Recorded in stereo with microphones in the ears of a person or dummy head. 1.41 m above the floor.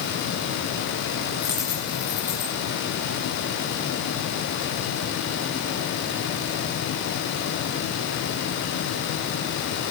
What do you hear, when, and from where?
1.4 s a dropped coin: 10° left (ahead or behind), 1.6 m